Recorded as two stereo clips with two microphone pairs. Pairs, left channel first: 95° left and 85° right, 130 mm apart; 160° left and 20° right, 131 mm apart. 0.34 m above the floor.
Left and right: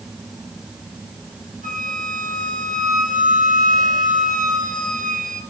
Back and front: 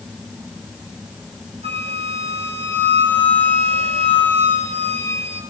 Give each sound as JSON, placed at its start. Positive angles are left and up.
{"t": 1.6, "sound": "a flute", "azimuth_deg": -65, "distance_m": 3.5}